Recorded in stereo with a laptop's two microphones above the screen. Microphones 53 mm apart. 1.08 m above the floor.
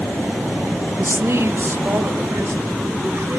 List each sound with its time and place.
1.0 s a woman speaking: 50° right (ahead or behind), 0.7 m; by 3.4 s 55° right (ahead or behind), 3.5 m